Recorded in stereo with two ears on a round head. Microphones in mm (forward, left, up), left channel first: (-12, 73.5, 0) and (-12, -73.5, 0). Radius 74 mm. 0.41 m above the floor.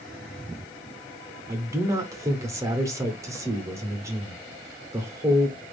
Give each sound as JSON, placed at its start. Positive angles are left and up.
{"t": 1.5, "sound": "a man speaking", "side_deg": -20, "distance_m": 0.9}